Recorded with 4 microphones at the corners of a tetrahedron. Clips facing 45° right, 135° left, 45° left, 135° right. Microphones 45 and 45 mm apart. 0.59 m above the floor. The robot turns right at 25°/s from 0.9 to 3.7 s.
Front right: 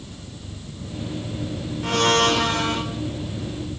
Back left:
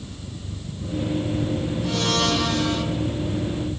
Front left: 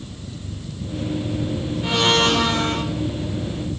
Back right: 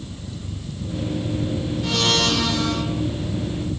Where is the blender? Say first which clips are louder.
Front right 6 dB, front left 4 dB; 20° right, 2 m; by 2.9 s 5° left, 2 m.